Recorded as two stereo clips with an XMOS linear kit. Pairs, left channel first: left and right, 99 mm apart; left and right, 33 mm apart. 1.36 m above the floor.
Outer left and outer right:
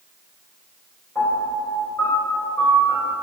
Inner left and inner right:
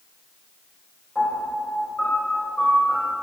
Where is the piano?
25° left (ahead or behind), 2.5 m.